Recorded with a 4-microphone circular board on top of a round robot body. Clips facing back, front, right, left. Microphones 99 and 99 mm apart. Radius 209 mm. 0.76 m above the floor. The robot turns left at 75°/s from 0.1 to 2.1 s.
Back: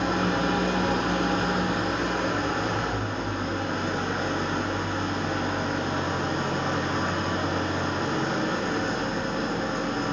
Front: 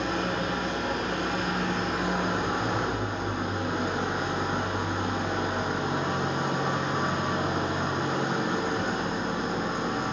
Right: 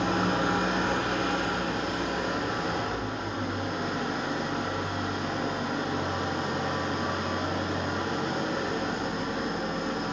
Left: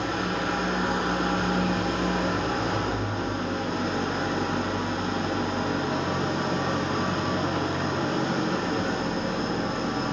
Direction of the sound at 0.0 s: 135° right.